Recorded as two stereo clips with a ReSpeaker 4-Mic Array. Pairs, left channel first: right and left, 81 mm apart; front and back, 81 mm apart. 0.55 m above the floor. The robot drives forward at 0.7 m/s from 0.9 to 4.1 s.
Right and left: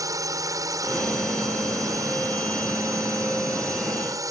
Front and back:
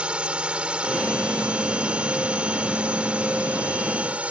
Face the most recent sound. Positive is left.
turn(degrees=110)